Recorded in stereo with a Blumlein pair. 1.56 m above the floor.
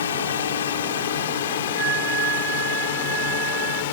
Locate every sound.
0.0 s a drone: 65° left; by 3.9 s 55° left
1.8 s a flute: 35° right